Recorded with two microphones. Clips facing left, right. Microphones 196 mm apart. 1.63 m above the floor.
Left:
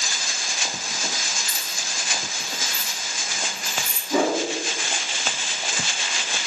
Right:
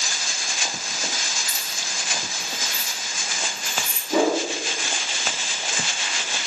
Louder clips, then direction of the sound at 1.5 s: Even; 20° right (ahead or behind).